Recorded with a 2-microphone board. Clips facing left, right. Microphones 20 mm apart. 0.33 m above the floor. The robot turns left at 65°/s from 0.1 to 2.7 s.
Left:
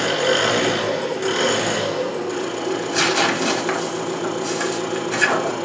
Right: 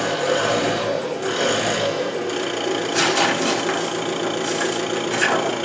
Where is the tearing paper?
5° left (ahead or behind), 0.9 m.